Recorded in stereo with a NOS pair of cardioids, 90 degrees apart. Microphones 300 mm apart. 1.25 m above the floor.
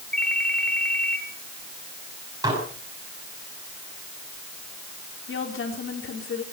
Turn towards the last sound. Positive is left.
turn(degrees=45)